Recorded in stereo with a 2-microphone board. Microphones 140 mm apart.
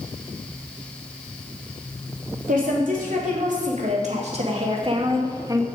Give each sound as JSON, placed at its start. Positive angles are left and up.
{"t": 2.5, "sound": "a woman speaking", "side_deg": -70, "distance_m": 3.0}